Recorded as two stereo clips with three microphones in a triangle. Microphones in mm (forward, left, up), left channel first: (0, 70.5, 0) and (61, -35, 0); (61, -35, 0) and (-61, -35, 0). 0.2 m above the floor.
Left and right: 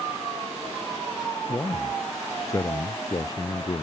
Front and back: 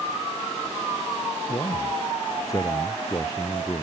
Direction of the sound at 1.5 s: 50° left.